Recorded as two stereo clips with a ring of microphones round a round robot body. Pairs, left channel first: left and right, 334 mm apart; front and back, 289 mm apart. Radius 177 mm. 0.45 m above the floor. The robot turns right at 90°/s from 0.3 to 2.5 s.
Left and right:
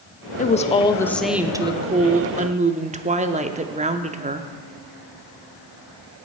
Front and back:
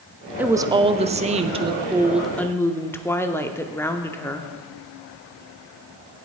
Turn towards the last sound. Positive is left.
turn(degrees=-65)